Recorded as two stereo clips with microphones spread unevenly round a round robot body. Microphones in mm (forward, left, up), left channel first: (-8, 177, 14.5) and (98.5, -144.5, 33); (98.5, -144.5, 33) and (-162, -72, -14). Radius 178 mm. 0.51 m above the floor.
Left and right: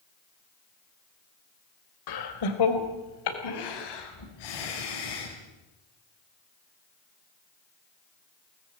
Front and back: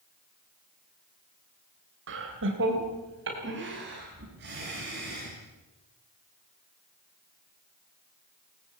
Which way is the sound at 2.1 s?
120° left.